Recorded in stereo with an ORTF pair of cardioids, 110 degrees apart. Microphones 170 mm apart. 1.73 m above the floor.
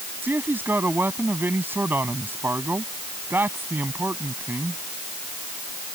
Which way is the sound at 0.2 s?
10° right.